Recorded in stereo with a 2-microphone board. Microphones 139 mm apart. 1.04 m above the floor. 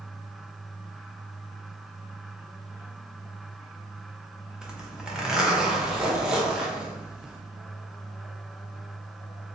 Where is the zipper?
5° right (ahead or behind), 0.6 m.